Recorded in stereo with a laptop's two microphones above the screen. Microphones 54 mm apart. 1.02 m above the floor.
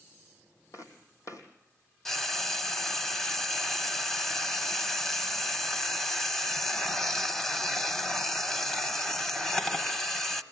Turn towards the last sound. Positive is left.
turn(degrees=10)  # may be behind; listen again after turning